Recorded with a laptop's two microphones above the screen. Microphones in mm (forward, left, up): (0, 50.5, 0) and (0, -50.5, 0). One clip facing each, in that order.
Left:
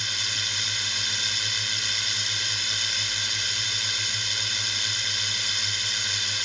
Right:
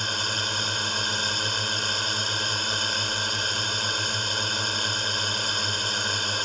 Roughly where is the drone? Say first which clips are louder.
Right 6 dB; right.